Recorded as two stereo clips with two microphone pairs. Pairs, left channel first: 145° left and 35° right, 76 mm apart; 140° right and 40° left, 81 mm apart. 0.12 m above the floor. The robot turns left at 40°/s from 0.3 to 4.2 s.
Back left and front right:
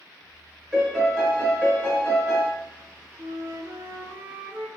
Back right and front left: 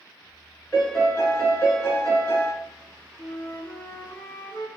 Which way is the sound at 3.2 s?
60° right.